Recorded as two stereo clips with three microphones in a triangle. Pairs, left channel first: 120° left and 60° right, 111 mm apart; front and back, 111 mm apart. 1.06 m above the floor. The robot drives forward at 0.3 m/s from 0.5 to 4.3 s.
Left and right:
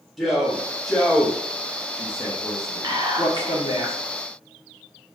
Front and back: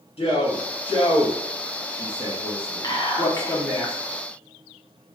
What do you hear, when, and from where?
0.2 s a man speaking: 30° left, 1.2 m; by 3.8 s 85° left, 0.6 m
2.8 s whispering: 30° right, 0.9 m; by 4.0 s 60° right, 0.8 m